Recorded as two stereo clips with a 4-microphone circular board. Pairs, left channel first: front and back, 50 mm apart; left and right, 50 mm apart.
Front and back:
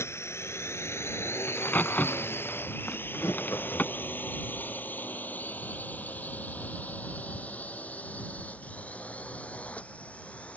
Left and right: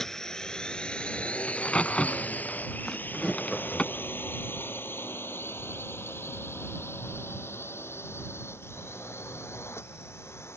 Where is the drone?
10° left; by 10.6 s 65° left.